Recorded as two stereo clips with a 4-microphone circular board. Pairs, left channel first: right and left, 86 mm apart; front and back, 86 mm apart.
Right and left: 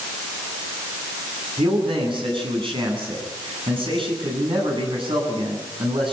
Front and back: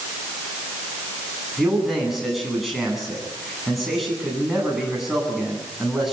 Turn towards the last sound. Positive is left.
turn(degrees=90)